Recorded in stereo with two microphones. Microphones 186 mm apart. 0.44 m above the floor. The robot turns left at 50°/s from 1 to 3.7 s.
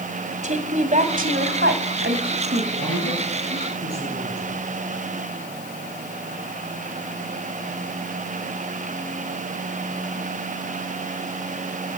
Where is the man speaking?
100° right, 9 m; by 4.6 s 145° right, 9 m.